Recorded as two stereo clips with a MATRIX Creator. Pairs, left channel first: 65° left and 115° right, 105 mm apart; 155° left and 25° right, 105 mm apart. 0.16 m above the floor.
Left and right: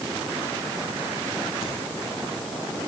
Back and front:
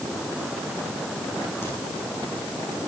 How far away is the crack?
About 8 m.